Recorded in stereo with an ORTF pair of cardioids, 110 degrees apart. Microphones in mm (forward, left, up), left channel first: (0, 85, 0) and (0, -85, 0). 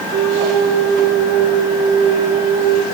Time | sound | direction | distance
0.1 | a flute | 65° right | 1.0 m